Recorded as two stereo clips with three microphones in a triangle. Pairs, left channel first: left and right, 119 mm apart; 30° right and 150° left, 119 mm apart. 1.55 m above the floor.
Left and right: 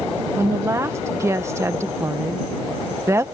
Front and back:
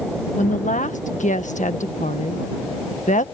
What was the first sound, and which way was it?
A woman speaking, 20° right.